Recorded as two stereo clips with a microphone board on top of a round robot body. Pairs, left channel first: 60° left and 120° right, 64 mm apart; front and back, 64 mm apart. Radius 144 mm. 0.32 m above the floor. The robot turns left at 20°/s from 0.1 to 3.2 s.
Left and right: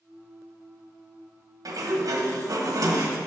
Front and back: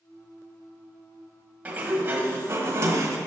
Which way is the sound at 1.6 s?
120° right.